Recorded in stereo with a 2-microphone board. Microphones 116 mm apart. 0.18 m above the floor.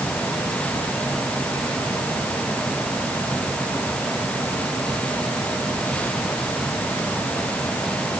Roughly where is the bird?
I don't hear a bird.